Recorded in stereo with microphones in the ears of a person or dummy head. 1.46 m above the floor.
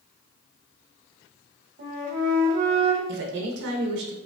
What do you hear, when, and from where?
1.8 s a flute: 40° right (ahead or behind), 1.2 m
3.1 s a woman speaking: 65° right (ahead or behind), 0.8 m